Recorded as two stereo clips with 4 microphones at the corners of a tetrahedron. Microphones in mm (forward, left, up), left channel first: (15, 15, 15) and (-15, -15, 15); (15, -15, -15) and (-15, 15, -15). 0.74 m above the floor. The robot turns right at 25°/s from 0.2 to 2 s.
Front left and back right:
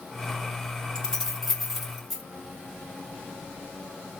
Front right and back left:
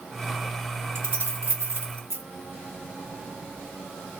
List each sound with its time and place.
0.9 s keys jangling: 120° left, 1.4 m; by 2.2 s 145° left, 1.4 m